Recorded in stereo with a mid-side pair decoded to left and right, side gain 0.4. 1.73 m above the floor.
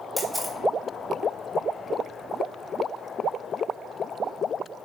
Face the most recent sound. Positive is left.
turn(degrees=0)